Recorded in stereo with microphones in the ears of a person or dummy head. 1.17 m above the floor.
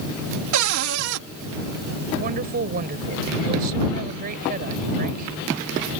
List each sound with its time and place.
0.5 s a cupboard door: 70° right (ahead or behind)
2.2 s a woman speaking: 50° right (ahead or behind)